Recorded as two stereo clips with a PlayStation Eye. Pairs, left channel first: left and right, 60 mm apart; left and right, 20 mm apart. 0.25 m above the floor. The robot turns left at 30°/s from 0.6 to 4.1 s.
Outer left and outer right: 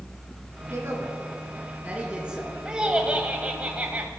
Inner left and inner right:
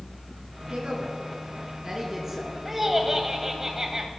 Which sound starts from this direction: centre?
Laughter, at 2.6 s.